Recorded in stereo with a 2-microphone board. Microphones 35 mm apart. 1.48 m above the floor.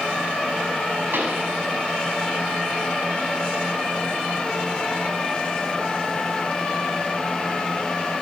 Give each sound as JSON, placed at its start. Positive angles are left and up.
{"t": 1.1, "sound": "a pop", "side_deg": -85, "distance_m": 7.0}